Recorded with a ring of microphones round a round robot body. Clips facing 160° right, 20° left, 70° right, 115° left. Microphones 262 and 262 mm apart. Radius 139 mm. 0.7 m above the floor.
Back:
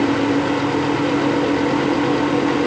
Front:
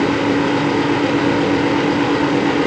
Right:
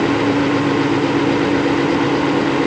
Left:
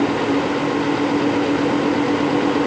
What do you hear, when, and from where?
Only background noise.